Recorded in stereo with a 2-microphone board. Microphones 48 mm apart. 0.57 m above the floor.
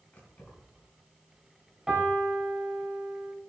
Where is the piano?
10° right (ahead or behind), 3.5 m.